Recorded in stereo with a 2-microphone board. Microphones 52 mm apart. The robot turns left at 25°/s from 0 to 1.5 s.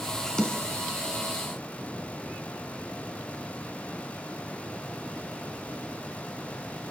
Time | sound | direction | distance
0.4 | a snare drum | 15° left (ahead or behind) | 4 m